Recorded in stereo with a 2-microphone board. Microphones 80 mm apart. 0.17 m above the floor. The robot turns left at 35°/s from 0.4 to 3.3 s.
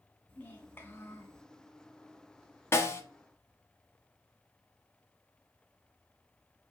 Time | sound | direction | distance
0.3 | a child speaking | 135° left | 1.1 m
2.7 | a snare drum | 35° left (ahead or behind) | 0.7 m